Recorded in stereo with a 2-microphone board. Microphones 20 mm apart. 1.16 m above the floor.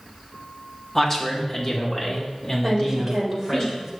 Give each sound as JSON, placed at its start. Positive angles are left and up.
{"t": 0.9, "sound": "a man speaking", "side_deg": 20, "distance_m": 1.2}
{"t": 2.6, "sound": "a woman speaking", "side_deg": -25, "distance_m": 2.5}